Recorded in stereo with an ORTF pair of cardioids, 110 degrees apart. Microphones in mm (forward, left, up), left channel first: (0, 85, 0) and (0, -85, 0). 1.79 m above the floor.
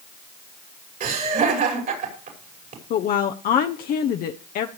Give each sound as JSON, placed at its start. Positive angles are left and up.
{"t": 1.0, "sound": "laughter", "azimuth_deg": -60, "distance_m": 5.5}
{"t": 2.9, "sound": "a woman speaking", "azimuth_deg": 60, "distance_m": 0.9}